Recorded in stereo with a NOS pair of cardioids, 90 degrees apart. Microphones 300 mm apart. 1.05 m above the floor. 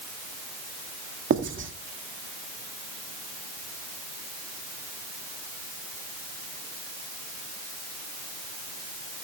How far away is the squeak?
No squeak in this recording.